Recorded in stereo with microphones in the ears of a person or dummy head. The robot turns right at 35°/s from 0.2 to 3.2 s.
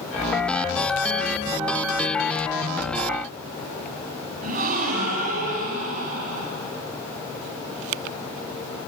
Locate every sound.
4.4 s a gasp: 50° right (ahead or behind), 6 m